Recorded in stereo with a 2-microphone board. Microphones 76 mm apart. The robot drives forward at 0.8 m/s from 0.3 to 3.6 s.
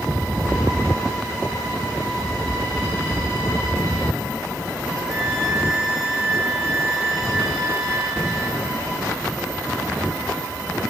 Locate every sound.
5.1 s a violin: centre (ahead or behind), 3.5 m